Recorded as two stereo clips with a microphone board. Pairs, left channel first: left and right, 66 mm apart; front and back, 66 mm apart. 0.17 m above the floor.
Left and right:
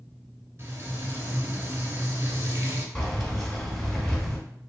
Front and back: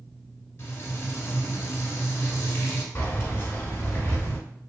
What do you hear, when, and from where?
0.6 s frying: 40° right, 0.7 m
3.0 s keys jangling: 15° left, 0.8 m